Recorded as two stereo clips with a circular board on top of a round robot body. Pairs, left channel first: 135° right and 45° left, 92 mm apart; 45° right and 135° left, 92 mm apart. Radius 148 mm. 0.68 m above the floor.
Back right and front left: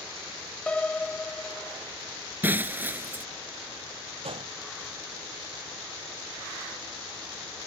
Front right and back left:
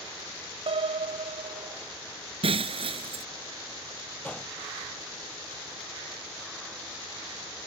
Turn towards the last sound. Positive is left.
turn(degrees=30)